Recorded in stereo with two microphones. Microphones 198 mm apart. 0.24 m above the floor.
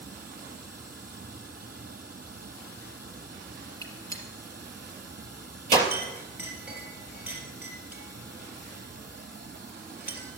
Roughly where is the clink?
Centre.